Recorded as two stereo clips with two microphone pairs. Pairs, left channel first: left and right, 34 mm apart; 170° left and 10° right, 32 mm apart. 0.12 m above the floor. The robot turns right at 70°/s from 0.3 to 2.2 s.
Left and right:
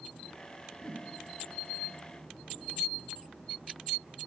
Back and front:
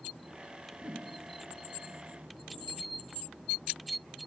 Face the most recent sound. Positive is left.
turn(degrees=30)